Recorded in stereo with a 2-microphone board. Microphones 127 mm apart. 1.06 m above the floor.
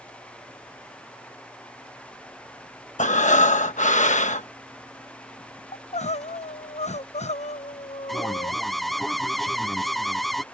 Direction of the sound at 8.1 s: Centre (ahead or behind).